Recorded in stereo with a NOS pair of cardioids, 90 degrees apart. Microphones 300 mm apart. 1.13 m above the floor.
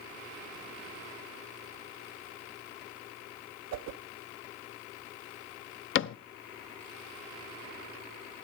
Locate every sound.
3.7 s a whoosh: 65° right, 0.6 m
6.0 s a cupboard door: 40° left, 0.6 m